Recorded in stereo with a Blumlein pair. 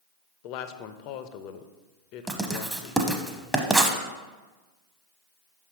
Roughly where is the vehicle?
No vehicle in this recording.